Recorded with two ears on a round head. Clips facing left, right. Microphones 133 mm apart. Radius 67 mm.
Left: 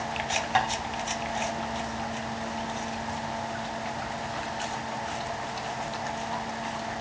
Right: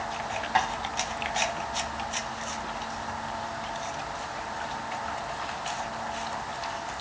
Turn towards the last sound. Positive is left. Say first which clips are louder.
# even
turn(degrees=30)  # may be behind; listen again after turning